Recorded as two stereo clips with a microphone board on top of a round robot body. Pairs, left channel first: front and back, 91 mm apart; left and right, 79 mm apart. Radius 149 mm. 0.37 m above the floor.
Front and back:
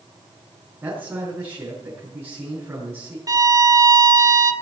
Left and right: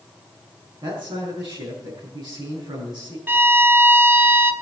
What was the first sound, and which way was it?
A man speaking, 115° right.